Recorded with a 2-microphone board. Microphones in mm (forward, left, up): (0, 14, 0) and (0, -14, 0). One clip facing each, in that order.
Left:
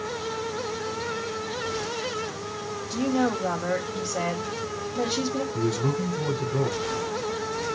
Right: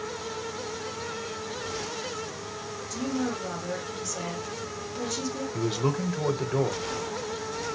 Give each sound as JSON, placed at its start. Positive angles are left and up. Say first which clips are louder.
{"t": 2.9, "sound": "a woman speaking", "louder": "left 6 dB", "side_deg": 45, "distance_m": 2.5}
{"t": 5.5, "sound": "a man speaking", "louder": "right 1 dB", "side_deg": -45, "distance_m": 1.6}